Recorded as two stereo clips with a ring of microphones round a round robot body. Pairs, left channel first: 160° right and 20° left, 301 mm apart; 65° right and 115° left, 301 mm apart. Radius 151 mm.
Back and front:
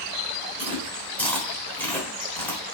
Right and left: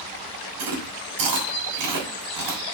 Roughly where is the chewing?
Behind left.